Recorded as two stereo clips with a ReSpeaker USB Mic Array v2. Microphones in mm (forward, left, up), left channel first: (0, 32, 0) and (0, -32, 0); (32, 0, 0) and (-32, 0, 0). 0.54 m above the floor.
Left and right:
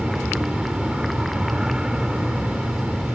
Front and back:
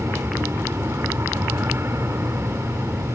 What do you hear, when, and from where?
0.0 s an aircraft: 165° right